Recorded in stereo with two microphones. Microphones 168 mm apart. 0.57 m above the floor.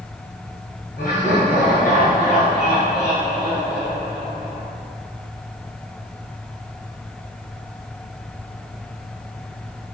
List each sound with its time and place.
1.0 s laughter: 60° left (ahead or behind), 2.5 m